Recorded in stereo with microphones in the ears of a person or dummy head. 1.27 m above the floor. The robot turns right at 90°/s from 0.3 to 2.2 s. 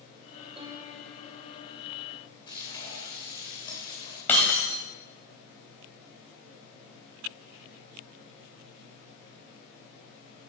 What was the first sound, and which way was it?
A piano, 35° right.